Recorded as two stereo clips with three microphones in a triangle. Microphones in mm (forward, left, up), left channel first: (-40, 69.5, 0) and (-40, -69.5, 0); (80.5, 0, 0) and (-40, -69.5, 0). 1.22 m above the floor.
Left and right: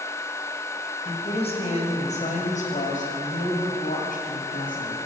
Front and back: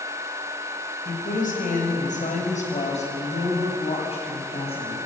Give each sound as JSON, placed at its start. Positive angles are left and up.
{"t": 1.1, "sound": "a woman speaking", "azimuth_deg": 40, "distance_m": 6.0}